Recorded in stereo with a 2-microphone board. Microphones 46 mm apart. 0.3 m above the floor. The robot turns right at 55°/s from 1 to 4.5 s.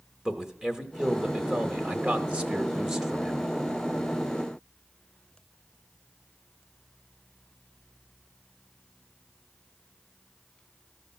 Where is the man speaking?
20° right (ahead or behind), 1.1 m; by 3.5 s centre (ahead or behind), 1.1 m.